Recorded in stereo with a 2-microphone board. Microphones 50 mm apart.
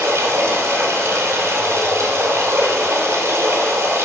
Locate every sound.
0.0 s running water: 60° right (ahead or behind), 1.9 m